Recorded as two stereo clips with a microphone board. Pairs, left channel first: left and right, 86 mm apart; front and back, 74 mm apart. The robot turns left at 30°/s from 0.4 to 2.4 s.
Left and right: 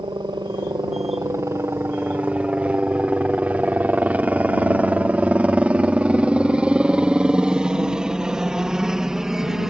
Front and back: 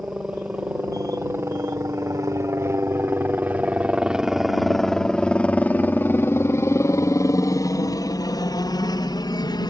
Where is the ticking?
No ticking in this recording.